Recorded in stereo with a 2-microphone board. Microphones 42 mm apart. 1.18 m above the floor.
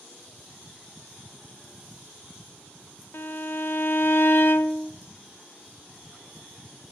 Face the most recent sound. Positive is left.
turn(degrees=60)  # may be behind; listen again after turning